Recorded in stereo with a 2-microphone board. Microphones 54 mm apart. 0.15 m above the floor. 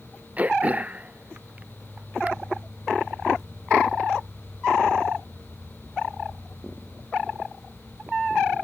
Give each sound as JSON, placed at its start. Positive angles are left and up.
{"t": 0.4, "sound": "throat clearing", "side_deg": -30}